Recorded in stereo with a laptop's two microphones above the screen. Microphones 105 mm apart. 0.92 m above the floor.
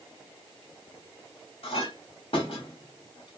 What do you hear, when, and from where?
1.6 s a clink: 75° left (ahead or behind), 1.2 m